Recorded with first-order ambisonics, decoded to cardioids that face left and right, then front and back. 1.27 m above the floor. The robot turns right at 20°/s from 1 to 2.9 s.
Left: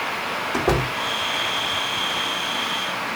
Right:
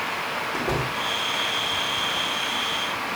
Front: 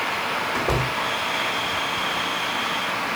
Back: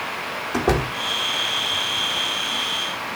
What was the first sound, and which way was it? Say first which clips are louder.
A door slam: left 7 dB, back 1 dB; 150° left.